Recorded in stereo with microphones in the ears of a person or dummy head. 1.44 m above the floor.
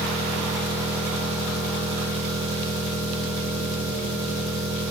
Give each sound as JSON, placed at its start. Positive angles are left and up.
{"t": 0.0, "sound": "an engine running", "side_deg": -25, "distance_m": 4.0}